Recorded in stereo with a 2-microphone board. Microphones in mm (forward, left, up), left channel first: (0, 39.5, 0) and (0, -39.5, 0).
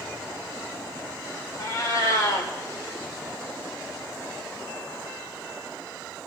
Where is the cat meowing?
45° left (ahead or behind), 2.5 m.